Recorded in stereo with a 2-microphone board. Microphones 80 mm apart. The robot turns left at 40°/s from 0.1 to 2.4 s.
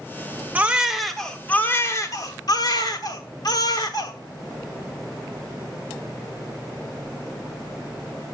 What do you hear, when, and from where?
0.6 s a baby crying: 160° right, 1.1 m; by 4.1 s 125° left, 1.1 m